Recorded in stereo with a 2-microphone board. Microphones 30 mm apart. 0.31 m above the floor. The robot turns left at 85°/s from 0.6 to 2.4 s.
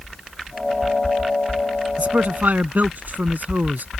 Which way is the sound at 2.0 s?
50° right.